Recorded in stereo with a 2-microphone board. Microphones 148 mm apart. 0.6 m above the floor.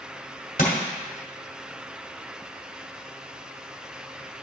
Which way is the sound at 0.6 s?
65° left (ahead or behind).